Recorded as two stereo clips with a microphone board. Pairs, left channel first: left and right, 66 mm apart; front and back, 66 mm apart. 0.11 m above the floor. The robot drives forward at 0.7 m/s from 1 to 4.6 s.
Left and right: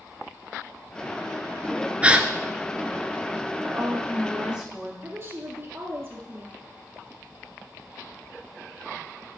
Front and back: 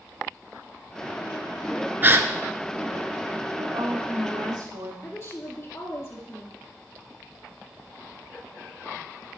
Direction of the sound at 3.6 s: 165° right.